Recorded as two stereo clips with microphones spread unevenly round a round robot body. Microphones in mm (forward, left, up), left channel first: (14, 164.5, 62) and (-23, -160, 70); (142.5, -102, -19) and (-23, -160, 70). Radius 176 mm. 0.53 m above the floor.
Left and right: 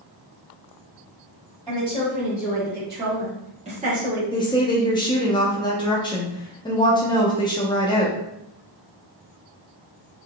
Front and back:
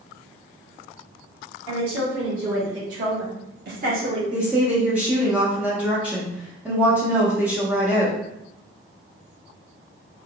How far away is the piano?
No piano in this recording.